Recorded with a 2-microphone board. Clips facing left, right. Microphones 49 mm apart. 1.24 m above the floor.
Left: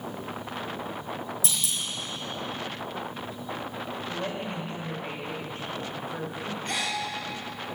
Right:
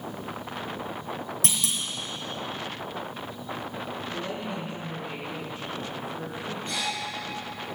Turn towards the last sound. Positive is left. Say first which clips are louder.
# left 1 dB
turn(degrees=70)  # may be behind; listen again after turning